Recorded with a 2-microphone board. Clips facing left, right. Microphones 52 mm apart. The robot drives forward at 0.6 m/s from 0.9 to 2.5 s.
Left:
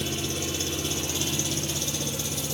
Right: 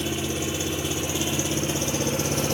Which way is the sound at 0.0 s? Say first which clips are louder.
Right 3 dB; 25° right (ahead or behind).